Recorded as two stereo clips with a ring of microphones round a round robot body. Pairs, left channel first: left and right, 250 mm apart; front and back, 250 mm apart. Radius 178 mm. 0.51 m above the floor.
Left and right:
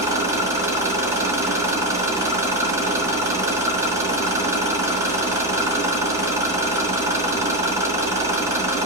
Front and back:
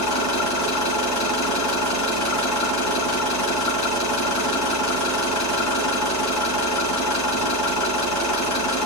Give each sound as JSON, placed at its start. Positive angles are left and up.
{"t": 0.0, "sound": "an engine running", "azimuth_deg": -10, "distance_m": 3.5}